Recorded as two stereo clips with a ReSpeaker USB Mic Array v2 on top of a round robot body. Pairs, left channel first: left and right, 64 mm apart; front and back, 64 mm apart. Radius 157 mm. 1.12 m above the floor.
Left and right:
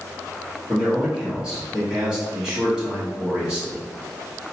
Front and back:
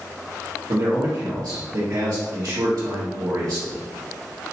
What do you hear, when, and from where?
0.7 s a man speaking: 170° right, 1.3 m